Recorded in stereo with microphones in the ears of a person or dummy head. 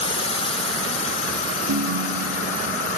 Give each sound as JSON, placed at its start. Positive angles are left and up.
{"t": 0.0, "sound": "a drone", "side_deg": 30}
{"t": 1.7, "sound": "a ringtone", "side_deg": -70}